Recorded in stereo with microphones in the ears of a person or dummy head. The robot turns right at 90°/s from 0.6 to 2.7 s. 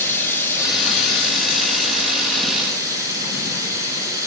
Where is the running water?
10° left, 5.5 m; by 4.3 s 160° right, 5.5 m.